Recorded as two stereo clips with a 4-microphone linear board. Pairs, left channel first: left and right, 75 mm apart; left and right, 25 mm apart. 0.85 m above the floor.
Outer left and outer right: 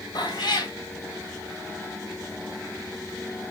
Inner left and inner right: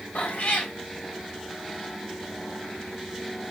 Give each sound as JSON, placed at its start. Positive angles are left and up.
{"t": 0.1, "sound": "a cat meowing", "side_deg": 70, "distance_m": 2.5}